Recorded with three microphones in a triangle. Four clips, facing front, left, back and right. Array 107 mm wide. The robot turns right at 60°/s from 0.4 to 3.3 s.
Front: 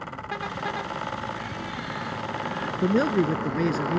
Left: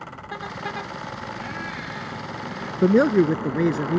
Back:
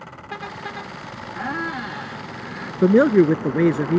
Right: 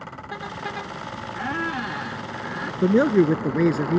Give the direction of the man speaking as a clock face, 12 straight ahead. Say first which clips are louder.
Left 1 dB, back 9 dB; 7 o'clock.